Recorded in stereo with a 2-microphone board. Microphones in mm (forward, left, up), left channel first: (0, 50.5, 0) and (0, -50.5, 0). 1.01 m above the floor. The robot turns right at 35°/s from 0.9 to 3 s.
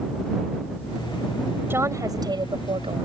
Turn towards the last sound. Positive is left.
turn(degrees=-115)